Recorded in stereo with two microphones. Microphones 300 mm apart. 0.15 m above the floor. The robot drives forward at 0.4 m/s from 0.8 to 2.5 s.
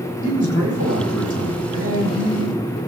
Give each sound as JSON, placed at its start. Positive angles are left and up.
{"t": 0.2, "sound": "a man speaking", "side_deg": 65, "distance_m": 6.0}